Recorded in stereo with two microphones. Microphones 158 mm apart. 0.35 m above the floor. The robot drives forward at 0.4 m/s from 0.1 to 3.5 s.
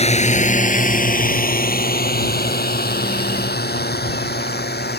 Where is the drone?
40° left (ahead or behind); by 5.0 s 75° left (ahead or behind).